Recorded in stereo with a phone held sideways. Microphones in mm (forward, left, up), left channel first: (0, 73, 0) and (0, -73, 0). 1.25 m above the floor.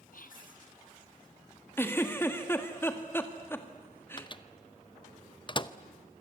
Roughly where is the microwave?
Left.